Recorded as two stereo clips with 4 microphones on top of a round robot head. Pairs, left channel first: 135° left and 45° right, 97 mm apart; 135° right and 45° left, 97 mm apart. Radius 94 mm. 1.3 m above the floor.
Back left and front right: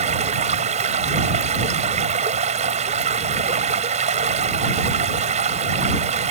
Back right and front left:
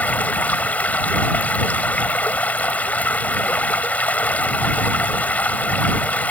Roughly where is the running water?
Ahead right.